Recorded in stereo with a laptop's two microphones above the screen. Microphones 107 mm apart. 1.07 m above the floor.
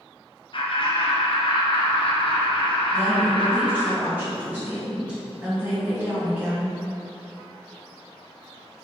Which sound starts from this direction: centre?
A woman speaking, at 2.9 s.